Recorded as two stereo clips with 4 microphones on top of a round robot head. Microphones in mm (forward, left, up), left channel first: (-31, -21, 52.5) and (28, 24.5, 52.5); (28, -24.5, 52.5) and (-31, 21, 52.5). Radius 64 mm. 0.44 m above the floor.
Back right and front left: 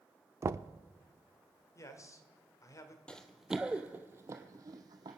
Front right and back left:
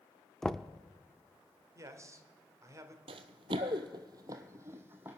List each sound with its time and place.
0.4 s knocking: 45° left, 0.5 m
1.8 s a man speaking: straight behind, 1.9 m
3.1 s running footsteps: 140° left, 1.0 m; by 5.2 s 75° left, 1.5 m